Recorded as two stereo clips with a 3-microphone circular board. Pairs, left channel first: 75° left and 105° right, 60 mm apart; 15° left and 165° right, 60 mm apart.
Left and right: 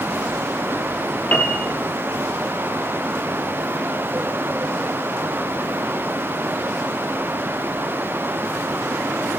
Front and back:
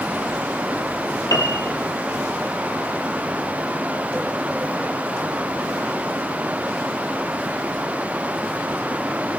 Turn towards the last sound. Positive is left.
turn(degrees=5)